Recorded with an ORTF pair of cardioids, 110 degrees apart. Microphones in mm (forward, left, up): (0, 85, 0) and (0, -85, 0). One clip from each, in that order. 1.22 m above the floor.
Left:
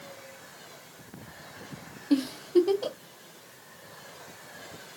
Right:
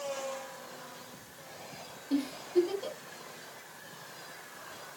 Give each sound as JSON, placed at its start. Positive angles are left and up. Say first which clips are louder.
{"t": 2.1, "sound": "a giggle", "louder": "left 5 dB", "azimuth_deg": 45, "distance_m": 0.5}